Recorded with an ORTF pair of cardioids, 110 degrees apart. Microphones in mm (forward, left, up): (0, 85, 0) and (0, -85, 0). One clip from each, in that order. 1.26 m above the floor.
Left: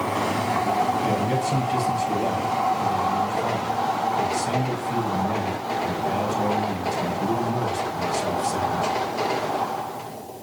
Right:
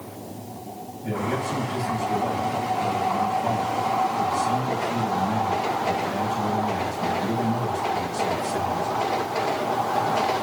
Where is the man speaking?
45° left, 7.5 m.